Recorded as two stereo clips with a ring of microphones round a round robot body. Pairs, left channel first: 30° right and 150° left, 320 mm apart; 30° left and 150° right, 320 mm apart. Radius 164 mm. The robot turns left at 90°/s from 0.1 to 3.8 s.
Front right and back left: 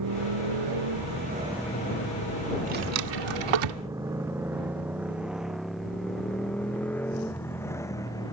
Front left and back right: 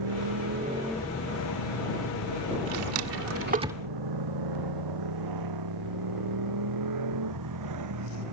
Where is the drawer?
140° right; by 3.8 s 120° left.